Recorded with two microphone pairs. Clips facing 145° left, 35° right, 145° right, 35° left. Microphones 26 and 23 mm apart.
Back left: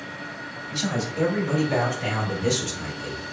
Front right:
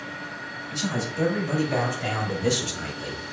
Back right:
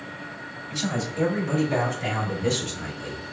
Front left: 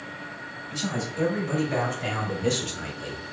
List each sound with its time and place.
0.7 s a man speaking: 160° left, 2 m; by 3.2 s 25° left, 1.6 m